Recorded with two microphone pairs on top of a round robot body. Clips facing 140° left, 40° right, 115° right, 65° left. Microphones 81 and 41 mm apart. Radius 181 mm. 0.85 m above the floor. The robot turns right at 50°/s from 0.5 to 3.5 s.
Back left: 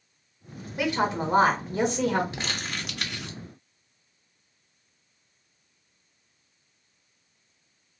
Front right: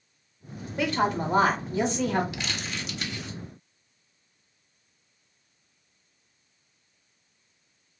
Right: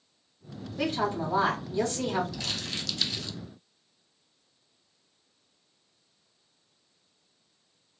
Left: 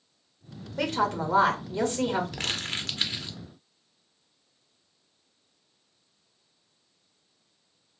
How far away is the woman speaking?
About 1.5 m.